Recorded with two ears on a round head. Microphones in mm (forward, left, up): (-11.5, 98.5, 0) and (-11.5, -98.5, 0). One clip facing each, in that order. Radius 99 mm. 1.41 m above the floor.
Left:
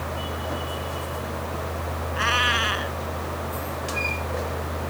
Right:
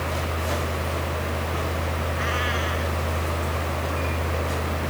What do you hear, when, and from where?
2.1 s a cat meowing: 80° left